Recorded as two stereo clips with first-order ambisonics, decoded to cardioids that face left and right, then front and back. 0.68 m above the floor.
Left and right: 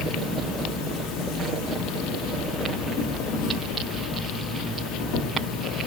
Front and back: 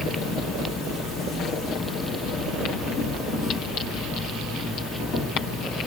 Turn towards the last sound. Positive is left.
turn(degrees=75)